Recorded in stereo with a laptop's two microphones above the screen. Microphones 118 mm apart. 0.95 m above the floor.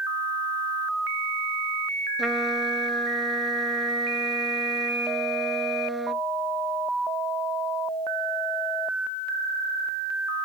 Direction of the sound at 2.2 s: Centre (ahead or behind).